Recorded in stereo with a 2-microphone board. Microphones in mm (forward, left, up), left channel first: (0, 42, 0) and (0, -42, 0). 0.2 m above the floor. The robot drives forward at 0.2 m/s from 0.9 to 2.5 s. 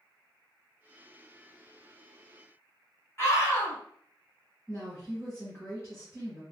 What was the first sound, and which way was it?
A scream, 35° left (ahead or behind).